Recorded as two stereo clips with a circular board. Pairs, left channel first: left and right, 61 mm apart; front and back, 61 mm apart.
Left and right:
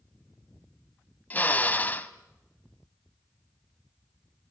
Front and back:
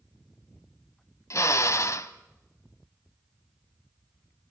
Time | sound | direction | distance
1.3 | a drill | 30° left | 1.0 m